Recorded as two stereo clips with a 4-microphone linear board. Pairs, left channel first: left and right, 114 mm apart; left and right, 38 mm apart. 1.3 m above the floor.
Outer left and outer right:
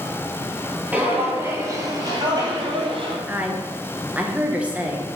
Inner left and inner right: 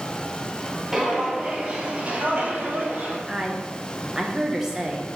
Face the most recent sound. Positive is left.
turn(degrees=-10)  # may be behind; listen again after turning